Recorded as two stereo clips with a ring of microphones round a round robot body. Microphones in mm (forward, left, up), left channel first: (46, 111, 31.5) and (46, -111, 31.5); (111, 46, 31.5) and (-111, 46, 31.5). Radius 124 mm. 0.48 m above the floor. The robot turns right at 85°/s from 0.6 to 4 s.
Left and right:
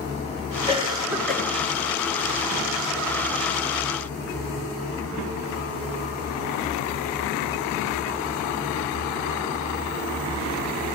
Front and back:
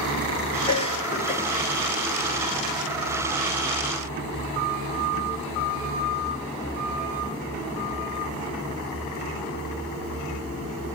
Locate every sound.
0.7 s a cough: 55° right, 1.2 m; by 1.4 s 10° left, 1.2 m